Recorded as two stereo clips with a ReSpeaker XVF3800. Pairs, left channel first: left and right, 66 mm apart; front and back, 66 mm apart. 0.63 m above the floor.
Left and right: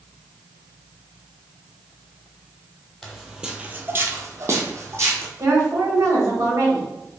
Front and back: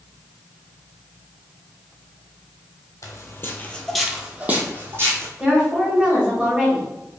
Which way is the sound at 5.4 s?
110° right.